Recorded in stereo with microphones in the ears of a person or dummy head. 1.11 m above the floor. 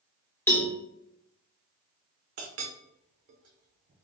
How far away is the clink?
About 0.6 m.